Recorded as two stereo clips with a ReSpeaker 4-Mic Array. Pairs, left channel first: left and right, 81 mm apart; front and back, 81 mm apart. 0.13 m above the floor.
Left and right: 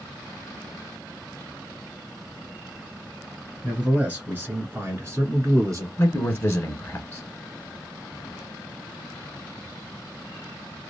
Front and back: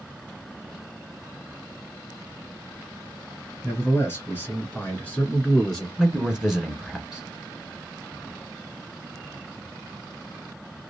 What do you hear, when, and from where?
3.6 s a man speaking: 25° right, 1.9 m; by 5.9 s 80° right, 2.0 m
6.0 s a man speaking: 100° left, 1.2 m